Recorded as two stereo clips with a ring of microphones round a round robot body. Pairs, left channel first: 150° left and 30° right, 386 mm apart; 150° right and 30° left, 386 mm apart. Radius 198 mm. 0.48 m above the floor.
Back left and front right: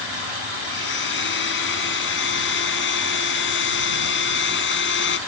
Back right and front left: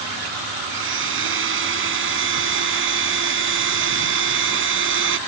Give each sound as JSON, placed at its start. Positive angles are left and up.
{"t": 0.7, "sound": "a blender", "azimuth_deg": 90}